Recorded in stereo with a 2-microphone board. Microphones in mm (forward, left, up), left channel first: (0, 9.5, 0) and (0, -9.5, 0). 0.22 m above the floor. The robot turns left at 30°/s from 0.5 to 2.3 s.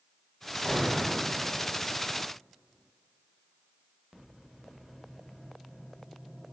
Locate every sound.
0.6 s an explosion: 70° left (ahead or behind), 1.4 m; by 1.3 s 60° left (ahead or behind), 1.4 m